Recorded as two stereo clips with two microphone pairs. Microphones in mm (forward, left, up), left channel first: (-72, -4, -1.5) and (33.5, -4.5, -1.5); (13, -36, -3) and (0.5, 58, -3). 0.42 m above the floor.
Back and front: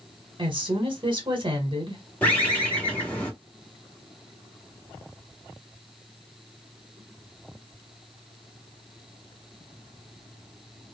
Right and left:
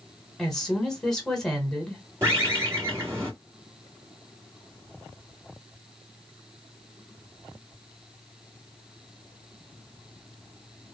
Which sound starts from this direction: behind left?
A bird, at 2.2 s.